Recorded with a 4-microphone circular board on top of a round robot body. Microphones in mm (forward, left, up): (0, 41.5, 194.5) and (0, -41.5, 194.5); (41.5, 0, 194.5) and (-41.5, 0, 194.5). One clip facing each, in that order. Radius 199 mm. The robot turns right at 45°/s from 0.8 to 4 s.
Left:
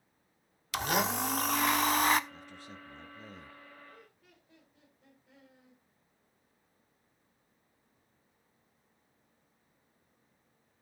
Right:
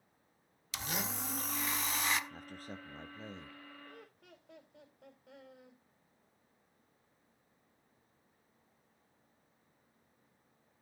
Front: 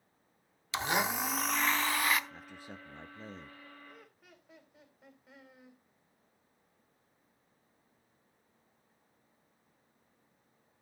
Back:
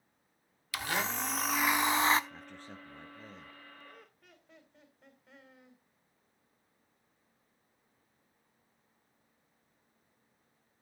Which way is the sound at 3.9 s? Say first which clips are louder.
Right 2 dB, even; 90° right.